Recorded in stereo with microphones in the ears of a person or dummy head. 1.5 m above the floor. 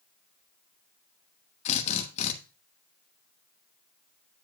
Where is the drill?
35° left (ahead or behind), 1.2 m.